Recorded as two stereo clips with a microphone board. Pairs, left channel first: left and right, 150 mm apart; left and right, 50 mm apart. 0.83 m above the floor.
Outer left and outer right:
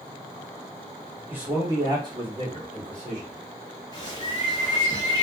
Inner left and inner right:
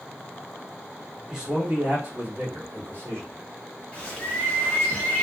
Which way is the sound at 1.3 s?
10° right (ahead or behind).